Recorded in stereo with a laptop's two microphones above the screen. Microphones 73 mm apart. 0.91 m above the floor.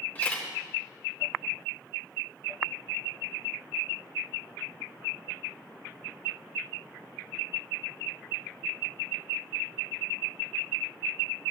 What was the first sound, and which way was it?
A camera shutter, 20° left (ahead or behind).